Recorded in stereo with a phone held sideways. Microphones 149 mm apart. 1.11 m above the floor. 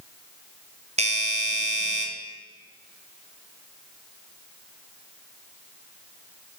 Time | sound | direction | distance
1.0 | a doorbell | 45° right (ahead or behind) | 0.6 m